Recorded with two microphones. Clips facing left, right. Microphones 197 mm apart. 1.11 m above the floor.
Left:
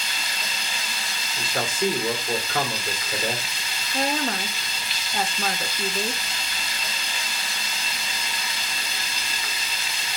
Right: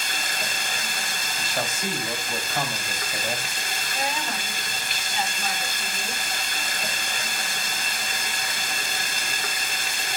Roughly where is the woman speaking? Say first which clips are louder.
Left 6 dB; left.